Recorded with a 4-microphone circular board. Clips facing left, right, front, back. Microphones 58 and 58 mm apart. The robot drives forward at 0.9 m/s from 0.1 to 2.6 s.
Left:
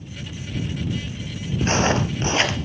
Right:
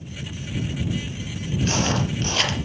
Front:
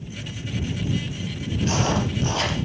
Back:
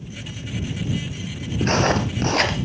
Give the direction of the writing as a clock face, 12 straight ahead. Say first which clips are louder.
Left 4 dB, back 4 dB; 7 o'clock.